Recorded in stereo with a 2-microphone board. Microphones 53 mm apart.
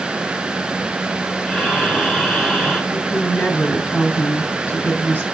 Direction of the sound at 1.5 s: 15° left (ahead or behind).